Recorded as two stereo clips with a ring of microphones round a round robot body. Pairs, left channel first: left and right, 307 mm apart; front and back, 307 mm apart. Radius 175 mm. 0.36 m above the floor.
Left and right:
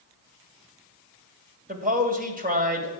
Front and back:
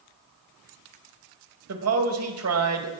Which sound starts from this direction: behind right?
A man speaking, at 1.7 s.